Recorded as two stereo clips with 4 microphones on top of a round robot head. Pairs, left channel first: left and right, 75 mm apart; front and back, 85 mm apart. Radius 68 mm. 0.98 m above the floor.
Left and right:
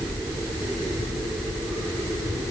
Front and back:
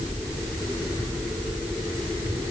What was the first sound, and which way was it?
Only background noise.